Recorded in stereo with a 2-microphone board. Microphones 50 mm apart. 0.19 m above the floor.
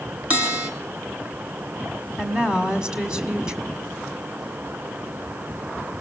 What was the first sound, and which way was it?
A bell, 25° right (ahead or behind).